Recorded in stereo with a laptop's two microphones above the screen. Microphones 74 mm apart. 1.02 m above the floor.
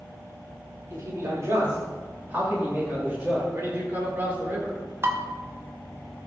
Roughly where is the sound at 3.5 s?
Right.